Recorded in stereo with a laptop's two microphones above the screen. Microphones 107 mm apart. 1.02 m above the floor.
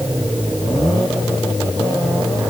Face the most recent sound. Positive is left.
No sound to turn to.